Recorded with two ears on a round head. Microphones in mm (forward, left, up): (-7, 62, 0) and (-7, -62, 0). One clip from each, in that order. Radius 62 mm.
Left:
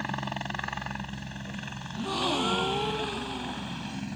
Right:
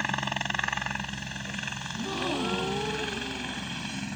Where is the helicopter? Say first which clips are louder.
Right 4 dB; 45° right (ahead or behind); by 4.2 s 35° right (ahead or behind).